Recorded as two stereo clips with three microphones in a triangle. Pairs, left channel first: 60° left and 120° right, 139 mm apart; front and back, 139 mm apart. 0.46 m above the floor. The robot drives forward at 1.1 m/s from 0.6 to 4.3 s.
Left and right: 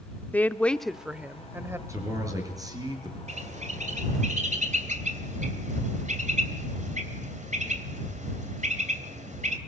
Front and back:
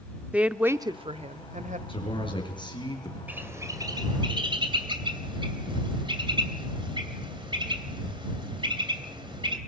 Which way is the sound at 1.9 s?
50° right.